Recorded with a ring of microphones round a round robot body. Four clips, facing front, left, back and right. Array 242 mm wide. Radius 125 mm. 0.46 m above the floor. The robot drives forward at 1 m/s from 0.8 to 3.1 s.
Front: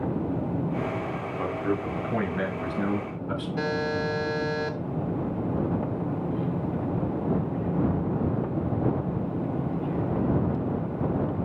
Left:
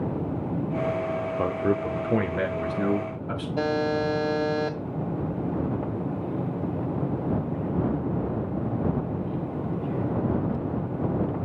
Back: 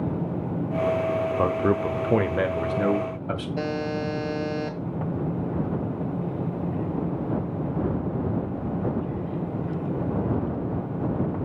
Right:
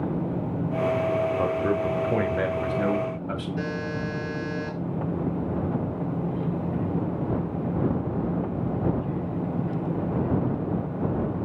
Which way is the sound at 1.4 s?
170° left.